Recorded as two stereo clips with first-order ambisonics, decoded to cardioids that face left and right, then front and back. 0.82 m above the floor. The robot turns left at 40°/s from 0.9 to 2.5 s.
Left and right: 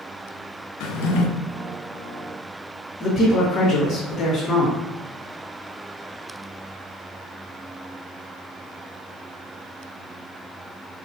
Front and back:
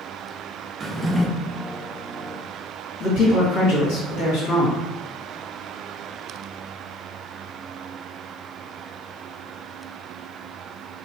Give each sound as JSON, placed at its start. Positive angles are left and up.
{"t": 0.8, "sound": "a drawer", "azimuth_deg": 105, "distance_m": 0.5}
{"t": 3.0, "sound": "a man speaking", "azimuth_deg": 25, "distance_m": 1.8}